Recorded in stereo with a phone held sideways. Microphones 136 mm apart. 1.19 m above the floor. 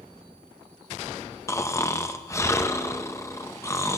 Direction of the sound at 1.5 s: 20° left (ahead or behind).